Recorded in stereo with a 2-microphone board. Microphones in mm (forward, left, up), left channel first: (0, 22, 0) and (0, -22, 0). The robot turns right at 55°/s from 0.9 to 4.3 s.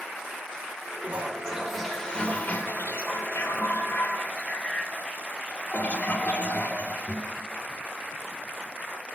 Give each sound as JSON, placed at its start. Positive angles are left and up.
{"t": 1.0, "sound": "a toilet flushing", "azimuth_deg": -40, "distance_m": 3.0}